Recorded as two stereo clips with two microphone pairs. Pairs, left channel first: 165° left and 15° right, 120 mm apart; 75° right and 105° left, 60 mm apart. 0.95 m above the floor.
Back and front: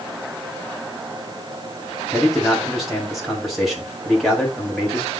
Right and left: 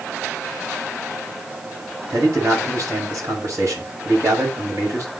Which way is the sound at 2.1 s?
75° left.